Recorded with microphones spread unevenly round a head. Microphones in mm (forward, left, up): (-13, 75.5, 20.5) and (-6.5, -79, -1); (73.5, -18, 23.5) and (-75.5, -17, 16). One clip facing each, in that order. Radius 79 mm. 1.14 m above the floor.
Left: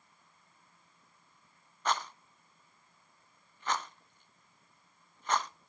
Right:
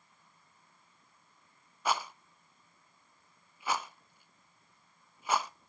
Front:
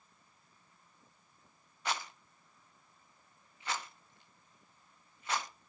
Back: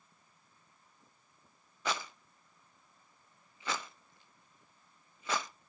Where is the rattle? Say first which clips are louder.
Right 1 dB, back 1 dB; 170° right, 0.5 m.